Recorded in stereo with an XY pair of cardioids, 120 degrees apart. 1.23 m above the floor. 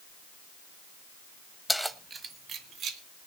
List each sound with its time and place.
1.7 s keys jangling: 5° left, 1.0 m; by 3.0 s 60° right, 2 m